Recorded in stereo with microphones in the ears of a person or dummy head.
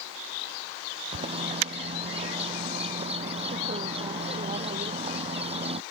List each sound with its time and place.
1.1 s a bird: 30° right (ahead or behind)